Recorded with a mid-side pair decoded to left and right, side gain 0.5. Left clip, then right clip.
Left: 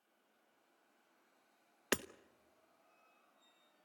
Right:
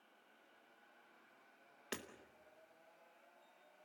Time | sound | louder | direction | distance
1.9 | hammering | left 10 dB | 60° left | 0.9 m